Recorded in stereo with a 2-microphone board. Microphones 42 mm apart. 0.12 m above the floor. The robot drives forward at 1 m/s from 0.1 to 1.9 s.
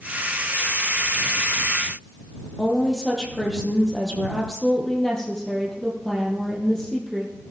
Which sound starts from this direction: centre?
A woman speaking, at 2.6 s.